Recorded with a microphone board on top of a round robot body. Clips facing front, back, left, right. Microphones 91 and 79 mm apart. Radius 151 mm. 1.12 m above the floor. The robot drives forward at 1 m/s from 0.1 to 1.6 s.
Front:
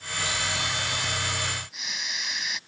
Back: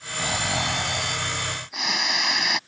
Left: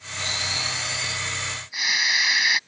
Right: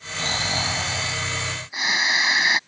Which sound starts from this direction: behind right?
Snoring, at 0.2 s.